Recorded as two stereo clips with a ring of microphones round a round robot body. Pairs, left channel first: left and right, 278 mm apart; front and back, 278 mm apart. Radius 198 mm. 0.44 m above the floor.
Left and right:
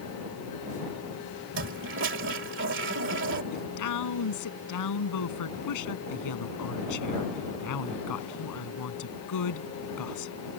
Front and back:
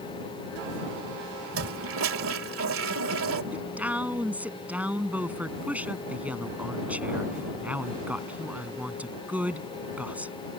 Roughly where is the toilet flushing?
Behind right.